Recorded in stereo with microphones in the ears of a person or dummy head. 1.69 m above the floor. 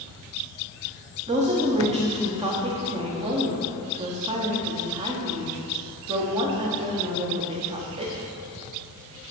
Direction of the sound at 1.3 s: 30° right (ahead or behind).